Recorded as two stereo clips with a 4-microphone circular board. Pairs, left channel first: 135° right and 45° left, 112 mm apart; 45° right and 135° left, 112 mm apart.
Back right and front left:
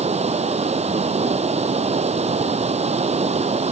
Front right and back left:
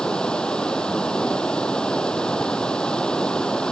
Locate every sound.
0.0 s running water: 40° left